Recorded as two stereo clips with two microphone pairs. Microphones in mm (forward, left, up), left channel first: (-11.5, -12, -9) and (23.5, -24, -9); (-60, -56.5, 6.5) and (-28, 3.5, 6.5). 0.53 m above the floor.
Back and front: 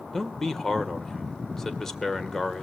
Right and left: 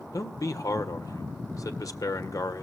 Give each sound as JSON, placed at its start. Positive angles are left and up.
{"t": 0.1, "sound": "a man speaking", "azimuth_deg": -120, "distance_m": 1.7}